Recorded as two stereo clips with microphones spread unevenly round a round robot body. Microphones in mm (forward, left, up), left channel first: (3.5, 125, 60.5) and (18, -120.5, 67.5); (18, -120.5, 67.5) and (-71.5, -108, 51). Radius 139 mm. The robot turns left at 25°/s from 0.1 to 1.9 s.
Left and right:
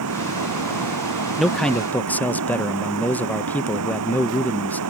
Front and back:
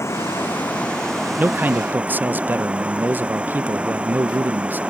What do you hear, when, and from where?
0.0 s running water: 65° right; by 4.9 s 110° right
1.4 s a man speaking: straight behind; by 4.8 s 170° left